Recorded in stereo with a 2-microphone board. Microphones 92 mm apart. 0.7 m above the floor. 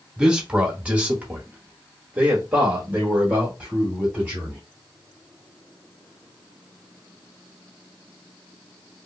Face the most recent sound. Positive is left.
turn(degrees=-15)  # may be behind; listen again after turning